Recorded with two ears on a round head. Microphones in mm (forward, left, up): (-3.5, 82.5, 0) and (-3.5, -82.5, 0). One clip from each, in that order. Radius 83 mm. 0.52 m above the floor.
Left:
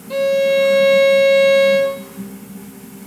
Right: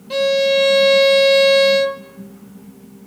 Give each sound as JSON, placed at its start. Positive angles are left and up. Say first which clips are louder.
{"t": 0.1, "sound": "a violin", "louder": "even", "side_deg": -30, "distance_m": 0.8}